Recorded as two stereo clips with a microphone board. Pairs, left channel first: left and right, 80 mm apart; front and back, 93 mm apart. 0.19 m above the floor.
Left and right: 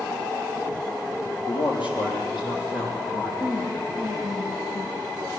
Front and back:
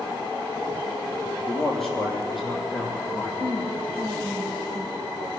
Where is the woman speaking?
145° left, 2.5 m.